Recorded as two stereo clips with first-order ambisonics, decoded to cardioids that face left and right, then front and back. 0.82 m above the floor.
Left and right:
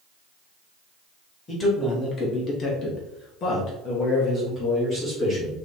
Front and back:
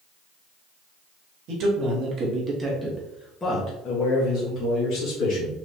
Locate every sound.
1.5 s a man speaking: 155° left, 1.4 m; by 5.5 s 20° left, 1.9 m